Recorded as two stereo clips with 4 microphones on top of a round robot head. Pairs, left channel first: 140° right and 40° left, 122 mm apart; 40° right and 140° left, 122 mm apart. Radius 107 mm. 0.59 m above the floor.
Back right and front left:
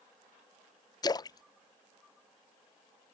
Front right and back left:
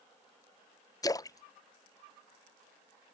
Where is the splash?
90° right.